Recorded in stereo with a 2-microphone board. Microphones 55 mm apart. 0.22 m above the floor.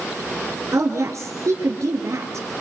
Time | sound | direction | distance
0.7 | a woman speaking | 65° right (ahead or behind) | 3 m